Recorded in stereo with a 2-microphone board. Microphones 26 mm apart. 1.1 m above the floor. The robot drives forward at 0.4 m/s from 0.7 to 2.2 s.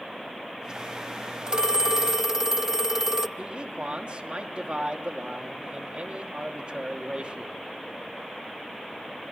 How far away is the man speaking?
About 2.5 m.